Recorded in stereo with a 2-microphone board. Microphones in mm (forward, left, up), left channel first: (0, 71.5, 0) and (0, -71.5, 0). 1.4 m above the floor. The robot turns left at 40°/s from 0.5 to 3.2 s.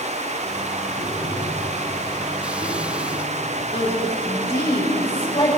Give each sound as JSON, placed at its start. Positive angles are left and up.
{"t": 1.0, "sound": "tapping", "side_deg": -85, "distance_m": 7.0}
{"t": 3.7, "sound": "a woman speaking", "side_deg": 45, "distance_m": 5.5}